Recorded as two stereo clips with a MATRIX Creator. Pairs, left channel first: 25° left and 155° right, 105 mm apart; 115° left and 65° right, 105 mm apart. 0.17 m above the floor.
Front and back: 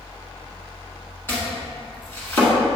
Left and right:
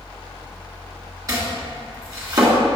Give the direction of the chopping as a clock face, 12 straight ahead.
1 o'clock.